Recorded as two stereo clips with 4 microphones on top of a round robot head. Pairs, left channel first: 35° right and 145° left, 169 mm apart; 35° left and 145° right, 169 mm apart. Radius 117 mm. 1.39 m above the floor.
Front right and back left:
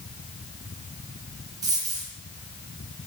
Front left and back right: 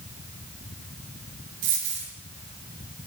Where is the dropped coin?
145° right, 5 m.